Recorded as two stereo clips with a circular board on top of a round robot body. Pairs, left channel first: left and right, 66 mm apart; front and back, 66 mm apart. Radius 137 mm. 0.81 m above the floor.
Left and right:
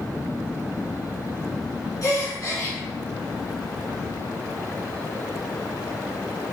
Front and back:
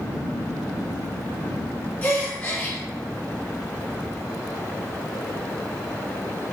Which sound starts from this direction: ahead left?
A gasp, at 2.0 s.